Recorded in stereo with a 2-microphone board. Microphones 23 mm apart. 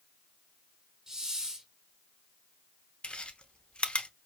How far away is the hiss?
About 1.0 m.